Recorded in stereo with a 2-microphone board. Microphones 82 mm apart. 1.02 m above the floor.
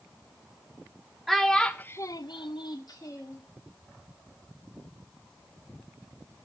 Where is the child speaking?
Centre (ahead or behind), 1.2 m; by 3.4 s 40° left (ahead or behind), 1.4 m.